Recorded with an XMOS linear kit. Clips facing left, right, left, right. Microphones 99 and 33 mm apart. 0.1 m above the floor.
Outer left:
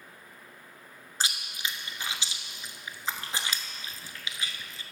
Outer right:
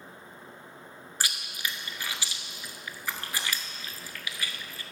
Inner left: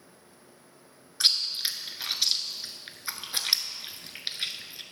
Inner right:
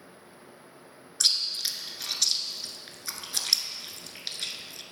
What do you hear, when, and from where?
1.2 s chewing: 25° left (ahead or behind), 0.6 m